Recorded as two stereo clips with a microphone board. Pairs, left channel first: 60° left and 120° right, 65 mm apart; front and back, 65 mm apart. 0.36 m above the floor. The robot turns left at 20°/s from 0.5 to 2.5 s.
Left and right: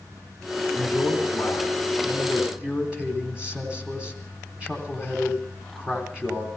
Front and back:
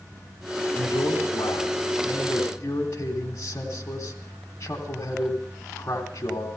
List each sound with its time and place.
0.8 s a man speaking: 10° right, 3 m; by 6.5 s 45° right, 3 m